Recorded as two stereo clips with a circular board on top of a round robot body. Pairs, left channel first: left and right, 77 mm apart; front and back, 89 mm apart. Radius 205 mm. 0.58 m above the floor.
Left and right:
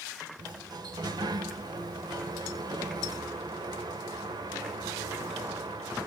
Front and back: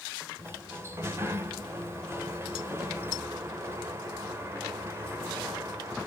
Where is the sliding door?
120° right, 1.5 m.